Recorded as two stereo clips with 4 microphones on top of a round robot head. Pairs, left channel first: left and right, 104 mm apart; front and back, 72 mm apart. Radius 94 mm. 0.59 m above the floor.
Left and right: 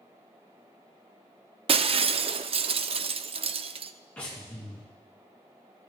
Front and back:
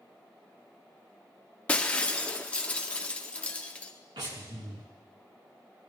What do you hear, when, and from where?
1.7 s breaking glass: 70° right, 0.6 m
4.2 s breathing: 165° left, 2.5 m